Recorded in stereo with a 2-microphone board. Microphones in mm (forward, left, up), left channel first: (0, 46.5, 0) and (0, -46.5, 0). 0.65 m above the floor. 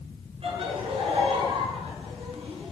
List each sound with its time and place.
0.4 s laughter: 85° right, 8.5 m